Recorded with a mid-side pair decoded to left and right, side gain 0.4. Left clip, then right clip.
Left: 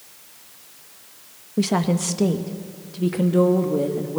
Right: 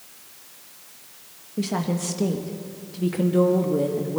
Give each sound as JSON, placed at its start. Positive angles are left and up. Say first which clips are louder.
{"t": 1.6, "sound": "a woman speaking", "louder": "left 5 dB", "azimuth_deg": 50, "distance_m": 1.4}